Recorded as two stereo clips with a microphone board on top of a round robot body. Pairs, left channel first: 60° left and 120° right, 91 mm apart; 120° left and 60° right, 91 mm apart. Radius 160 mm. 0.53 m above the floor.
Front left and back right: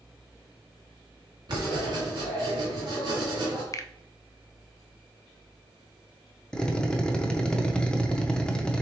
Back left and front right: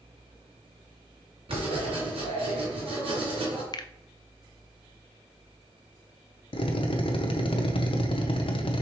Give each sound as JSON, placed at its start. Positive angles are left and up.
{"t": 1.5, "sound": "writing", "azimuth_deg": -80, "distance_m": 2.5}
{"t": 3.7, "sound": "a finger snap", "azimuth_deg": 105, "distance_m": 0.6}
{"t": 6.5, "sound": "a drill", "azimuth_deg": 140, "distance_m": 0.7}